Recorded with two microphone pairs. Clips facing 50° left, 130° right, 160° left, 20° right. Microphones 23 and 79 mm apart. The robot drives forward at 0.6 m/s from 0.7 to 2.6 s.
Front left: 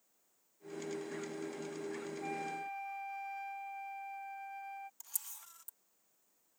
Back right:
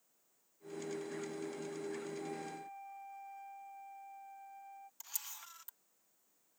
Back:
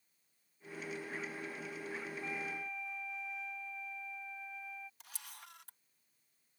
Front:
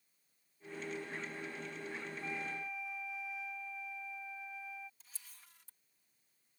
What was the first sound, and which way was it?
A flute, 65° left.